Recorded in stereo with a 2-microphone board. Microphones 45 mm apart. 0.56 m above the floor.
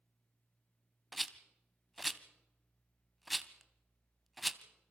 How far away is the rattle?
About 0.8 m.